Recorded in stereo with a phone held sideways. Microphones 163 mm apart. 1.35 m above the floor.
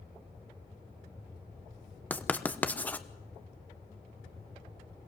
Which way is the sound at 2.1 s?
10° left (ahead or behind).